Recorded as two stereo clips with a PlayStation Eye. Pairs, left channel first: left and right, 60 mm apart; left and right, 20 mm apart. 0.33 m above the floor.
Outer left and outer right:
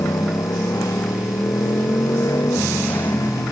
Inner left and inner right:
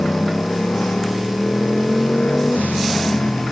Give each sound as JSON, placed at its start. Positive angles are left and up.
{"t": 0.0, "sound": "a motorcycle", "side_deg": 75}